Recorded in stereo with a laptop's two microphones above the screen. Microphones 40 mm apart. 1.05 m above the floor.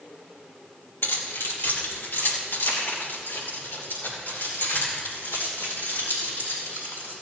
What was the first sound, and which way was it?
Keys jangling, 75° left (ahead or behind).